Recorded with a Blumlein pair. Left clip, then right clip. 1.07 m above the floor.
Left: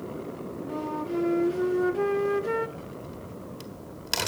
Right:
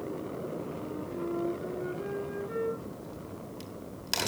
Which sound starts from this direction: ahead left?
A flute, at 0.7 s.